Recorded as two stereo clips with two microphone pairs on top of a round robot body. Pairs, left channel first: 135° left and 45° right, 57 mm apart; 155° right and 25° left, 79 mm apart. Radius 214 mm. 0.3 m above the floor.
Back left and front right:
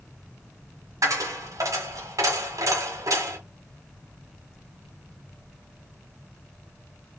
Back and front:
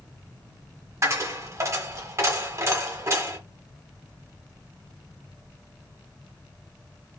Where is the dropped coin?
25° right, 1.5 m.